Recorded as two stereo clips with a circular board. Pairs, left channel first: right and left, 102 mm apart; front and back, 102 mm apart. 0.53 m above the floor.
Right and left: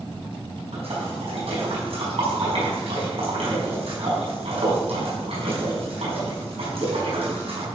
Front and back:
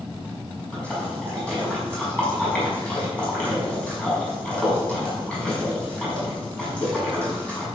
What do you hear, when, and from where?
0.7 s a splash: 80° left, 5.5 m